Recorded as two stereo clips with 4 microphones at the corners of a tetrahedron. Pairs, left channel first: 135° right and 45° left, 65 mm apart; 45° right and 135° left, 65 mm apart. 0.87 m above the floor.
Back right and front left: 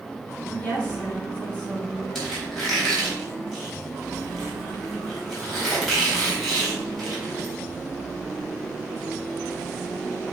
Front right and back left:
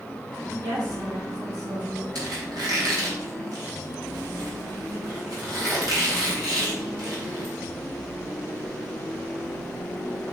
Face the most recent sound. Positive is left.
turn(degrees=135)